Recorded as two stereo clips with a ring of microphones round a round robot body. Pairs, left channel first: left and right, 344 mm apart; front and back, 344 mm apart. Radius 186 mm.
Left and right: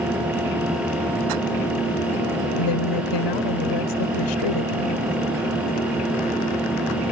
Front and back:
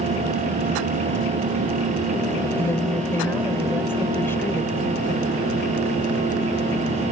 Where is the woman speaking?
85° left.